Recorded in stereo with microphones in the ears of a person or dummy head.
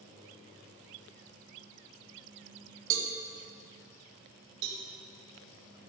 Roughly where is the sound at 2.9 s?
Right.